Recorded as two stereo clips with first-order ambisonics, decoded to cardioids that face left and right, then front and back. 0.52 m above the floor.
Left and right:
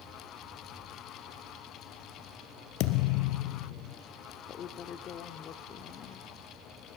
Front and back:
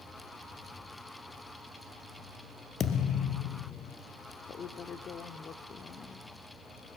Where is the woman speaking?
50° left, 1.1 m.